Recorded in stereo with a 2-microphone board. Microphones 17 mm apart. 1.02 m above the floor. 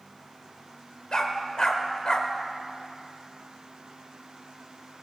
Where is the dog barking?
50° left (ahead or behind), 1.3 m.